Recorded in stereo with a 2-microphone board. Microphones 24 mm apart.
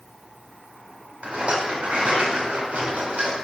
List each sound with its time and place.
1.2 s a rattle: 55° right (ahead or behind), 3 m